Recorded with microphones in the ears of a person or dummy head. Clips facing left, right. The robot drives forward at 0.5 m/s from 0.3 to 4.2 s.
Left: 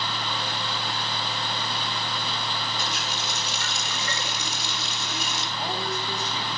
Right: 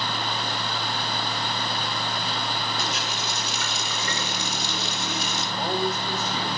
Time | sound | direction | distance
2.8 | a running tap | 65° right (ahead or behind) | 3.5 m
5.6 | a man speaking | 35° right (ahead or behind) | 4.5 m